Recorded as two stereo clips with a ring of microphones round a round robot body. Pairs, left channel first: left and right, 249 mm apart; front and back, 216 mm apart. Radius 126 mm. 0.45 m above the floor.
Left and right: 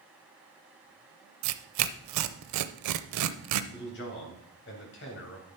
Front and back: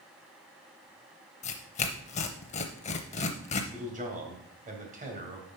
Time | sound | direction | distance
1.4 | tearing paper | 65° right | 0.6 m
3.7 | a man speaking | 130° left | 3 m